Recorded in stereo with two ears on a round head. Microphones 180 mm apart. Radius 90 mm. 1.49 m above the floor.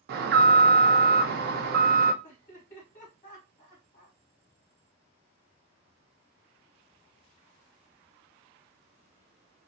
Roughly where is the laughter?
Left.